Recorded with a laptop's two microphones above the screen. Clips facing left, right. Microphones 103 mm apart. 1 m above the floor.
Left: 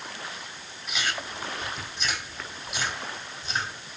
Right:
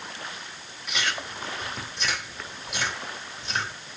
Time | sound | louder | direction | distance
0.9 | chewing | right 1 dB | 80° right | 3 m